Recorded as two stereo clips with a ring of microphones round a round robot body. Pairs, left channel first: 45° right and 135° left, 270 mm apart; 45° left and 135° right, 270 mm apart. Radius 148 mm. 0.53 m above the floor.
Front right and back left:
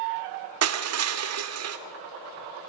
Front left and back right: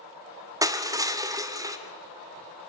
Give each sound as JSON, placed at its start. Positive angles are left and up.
{"t": 0.6, "sound": "crushing", "azimuth_deg": 150, "distance_m": 1.9}